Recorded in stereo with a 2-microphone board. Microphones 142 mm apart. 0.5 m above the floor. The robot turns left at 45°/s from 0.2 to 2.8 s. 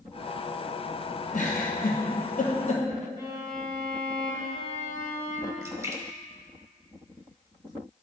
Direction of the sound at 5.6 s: 20° right (ahead or behind).